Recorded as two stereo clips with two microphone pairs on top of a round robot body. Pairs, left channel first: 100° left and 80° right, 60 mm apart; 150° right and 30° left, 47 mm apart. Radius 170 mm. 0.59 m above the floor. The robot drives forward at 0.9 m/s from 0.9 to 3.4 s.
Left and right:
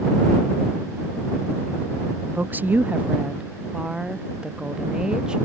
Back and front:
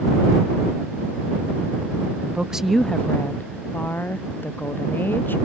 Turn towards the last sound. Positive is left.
turn(degrees=-145)